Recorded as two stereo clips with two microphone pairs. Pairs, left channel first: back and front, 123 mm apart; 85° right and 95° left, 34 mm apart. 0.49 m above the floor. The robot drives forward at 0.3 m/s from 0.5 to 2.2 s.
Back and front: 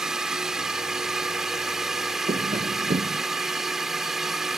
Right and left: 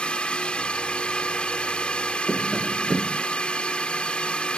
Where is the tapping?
10° left.